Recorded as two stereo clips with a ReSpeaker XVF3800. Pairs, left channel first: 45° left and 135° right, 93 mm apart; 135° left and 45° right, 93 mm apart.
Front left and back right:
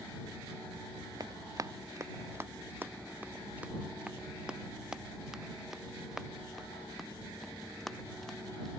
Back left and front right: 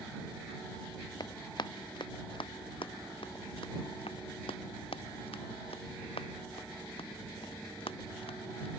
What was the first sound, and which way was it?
Running footsteps, straight behind.